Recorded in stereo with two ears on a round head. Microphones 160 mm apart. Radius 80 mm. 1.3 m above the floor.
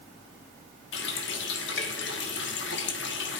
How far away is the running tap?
About 1.5 m.